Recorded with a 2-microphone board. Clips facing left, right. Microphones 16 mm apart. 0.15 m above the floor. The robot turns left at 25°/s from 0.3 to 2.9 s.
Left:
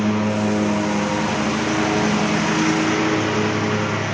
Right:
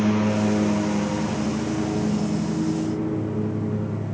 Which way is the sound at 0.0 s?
15° left (ahead or behind).